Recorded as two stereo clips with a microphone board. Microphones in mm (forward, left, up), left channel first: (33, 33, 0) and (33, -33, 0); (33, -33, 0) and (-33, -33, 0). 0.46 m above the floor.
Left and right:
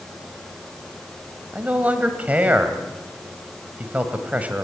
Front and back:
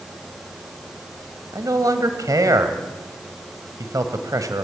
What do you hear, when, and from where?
1.5 s a man speaking: 155° right, 1.9 m